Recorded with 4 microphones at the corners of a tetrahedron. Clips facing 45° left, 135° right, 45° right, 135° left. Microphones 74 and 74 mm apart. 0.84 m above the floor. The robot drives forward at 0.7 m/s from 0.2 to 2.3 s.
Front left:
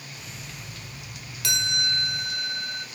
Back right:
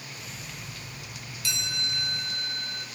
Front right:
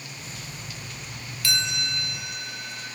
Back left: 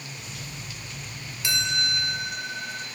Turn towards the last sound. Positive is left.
turn(degrees=90)